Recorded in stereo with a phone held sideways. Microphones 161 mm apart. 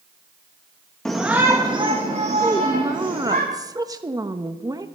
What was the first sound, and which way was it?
A shout, 5° left (ahead or behind).